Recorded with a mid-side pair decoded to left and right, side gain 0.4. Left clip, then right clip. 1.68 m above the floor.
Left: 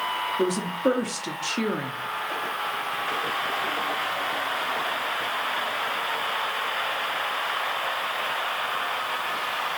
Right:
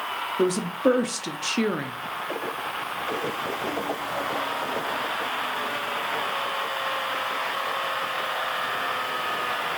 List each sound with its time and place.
0.4 s a woman speaking: 25° right, 0.6 m